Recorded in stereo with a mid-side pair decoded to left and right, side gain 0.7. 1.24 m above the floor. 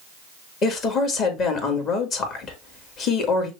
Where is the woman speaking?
45° left, 1.8 m.